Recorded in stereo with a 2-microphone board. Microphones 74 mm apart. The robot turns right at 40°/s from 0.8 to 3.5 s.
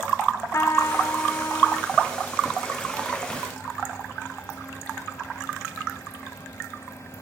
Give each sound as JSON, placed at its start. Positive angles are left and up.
{"t": 0.5, "sound": "a trumpet", "azimuth_deg": 85, "distance_m": 0.7}